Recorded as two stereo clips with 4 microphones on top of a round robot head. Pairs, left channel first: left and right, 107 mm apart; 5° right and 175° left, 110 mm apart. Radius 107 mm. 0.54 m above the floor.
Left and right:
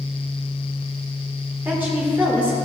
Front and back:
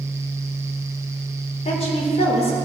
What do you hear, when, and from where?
1.6 s a woman speaking: 20° right, 2.0 m